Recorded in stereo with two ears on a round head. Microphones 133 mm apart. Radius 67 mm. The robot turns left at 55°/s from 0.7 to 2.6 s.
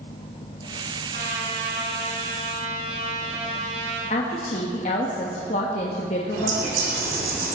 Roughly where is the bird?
Right.